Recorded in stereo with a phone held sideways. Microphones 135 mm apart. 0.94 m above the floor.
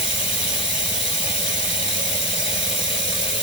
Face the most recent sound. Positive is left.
turn(degrees=45)  # may be behind; listen again after turning